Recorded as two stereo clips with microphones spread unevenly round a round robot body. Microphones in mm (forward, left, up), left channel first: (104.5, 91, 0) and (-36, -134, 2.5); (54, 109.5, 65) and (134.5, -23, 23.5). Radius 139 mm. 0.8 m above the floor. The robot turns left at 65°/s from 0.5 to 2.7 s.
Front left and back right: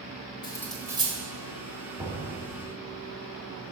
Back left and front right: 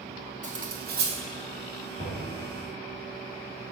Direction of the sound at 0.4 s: 15° right.